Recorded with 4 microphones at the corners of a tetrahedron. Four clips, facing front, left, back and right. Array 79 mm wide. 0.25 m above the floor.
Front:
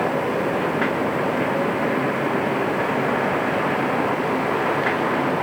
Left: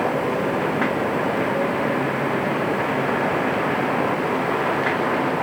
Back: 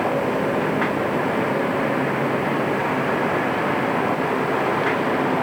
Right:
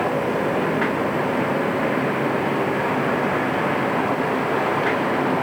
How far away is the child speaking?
I don't hear a child speaking.